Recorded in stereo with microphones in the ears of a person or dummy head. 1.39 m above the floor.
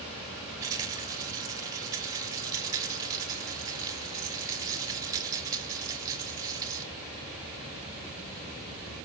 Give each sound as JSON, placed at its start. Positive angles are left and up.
{"t": 0.6, "sound": "a rattle", "side_deg": -15, "distance_m": 3.5}